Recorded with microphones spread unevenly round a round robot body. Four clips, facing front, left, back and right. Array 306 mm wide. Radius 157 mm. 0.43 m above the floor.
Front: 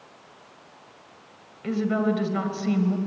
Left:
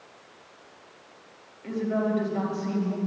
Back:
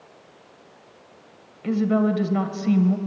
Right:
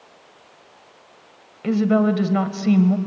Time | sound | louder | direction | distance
1.6 | a woman speaking | right 9 dB, back 3 dB | 85° right | 2 m